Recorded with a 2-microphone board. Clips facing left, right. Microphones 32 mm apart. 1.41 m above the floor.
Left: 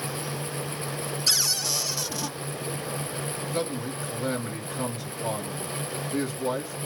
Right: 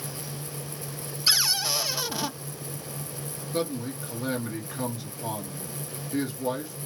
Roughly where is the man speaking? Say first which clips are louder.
Right 2 dB; centre.